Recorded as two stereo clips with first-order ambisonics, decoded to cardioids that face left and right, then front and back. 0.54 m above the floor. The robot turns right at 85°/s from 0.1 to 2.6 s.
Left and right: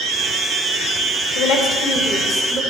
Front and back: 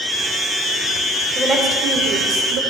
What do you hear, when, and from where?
1.4 s a woman speaking: 95° left, 2 m; by 2.6 s 160° right, 2 m